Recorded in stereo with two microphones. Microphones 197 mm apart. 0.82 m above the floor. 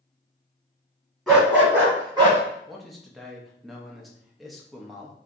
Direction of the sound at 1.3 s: Centre (ahead or behind).